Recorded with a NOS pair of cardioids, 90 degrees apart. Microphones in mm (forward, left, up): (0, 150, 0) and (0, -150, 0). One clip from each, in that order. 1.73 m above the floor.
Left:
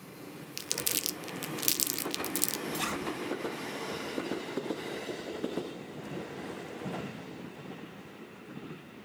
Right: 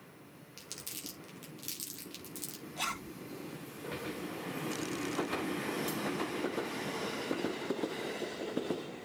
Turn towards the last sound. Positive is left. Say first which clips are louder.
# left 1 dB
turn(degrees=10)